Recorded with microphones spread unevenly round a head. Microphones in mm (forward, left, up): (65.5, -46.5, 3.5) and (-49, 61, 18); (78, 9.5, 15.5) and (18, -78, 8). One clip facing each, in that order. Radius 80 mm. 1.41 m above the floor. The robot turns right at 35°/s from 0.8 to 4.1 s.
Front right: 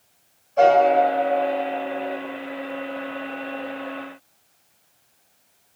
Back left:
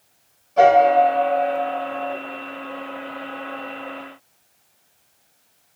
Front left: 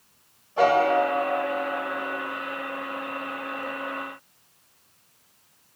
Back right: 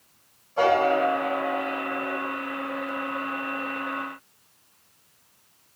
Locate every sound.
0.6 s a piano: 130° left, 2 m; by 2.1 s 175° left, 2 m